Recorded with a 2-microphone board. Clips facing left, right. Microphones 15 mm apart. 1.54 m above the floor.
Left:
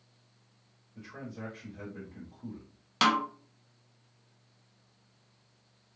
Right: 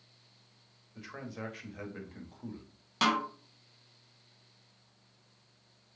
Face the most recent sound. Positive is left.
turn(degrees=30)  # may be behind; listen again after turning